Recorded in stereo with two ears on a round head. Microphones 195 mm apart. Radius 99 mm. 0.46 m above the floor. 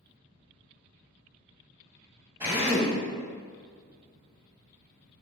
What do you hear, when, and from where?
2.4 s a drill: 10° right (ahead or behind), 2.5 m